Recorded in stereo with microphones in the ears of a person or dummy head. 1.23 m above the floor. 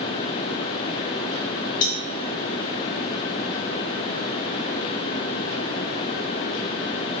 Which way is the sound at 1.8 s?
40° left (ahead or behind).